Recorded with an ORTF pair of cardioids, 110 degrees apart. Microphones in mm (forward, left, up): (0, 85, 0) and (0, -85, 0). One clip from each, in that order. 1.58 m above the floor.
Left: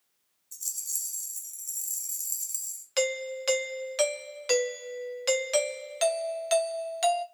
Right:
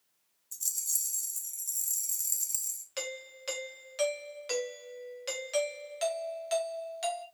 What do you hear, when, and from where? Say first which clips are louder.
0.5 s a rattle: right 1 dB; 10° right, 1.5 m
3.0 s a doorbell: left 13 dB; 40° left, 1.0 m